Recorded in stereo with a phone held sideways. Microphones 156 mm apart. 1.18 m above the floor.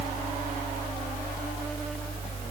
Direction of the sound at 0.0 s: 35° right (ahead or behind).